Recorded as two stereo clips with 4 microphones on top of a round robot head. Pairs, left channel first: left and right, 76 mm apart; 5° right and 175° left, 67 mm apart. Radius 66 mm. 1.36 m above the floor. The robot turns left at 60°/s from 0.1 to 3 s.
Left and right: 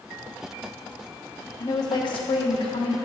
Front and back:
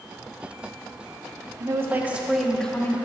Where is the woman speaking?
135° left, 1.2 m; by 3.0 s 50° left, 1.2 m.